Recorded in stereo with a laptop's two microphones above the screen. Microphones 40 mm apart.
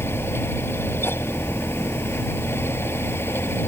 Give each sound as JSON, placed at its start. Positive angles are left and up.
{"t": 0.0, "sound": "a fan", "side_deg": 75}